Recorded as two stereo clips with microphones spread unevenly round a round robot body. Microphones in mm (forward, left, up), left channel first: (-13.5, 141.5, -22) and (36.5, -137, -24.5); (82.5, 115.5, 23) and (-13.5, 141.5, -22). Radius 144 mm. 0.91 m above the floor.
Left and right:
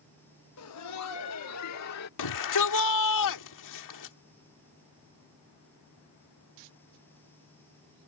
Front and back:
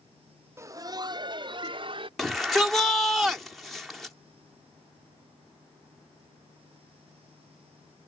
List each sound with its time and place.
0.6 s laughter: 130° left; by 2.1 s 135° left
2.2 s a shout: 80° left